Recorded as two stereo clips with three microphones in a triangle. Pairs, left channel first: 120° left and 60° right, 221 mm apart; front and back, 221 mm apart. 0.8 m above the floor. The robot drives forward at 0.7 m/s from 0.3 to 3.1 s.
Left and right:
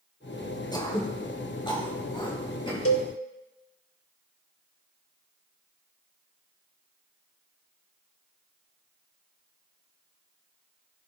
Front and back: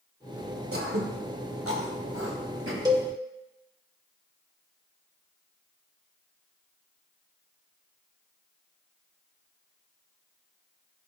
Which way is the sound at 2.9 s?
110° left.